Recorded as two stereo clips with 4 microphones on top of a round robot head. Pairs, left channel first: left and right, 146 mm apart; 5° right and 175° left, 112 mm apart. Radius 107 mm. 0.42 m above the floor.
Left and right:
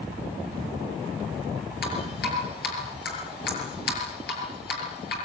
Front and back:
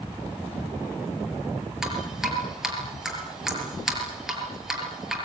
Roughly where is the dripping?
Left.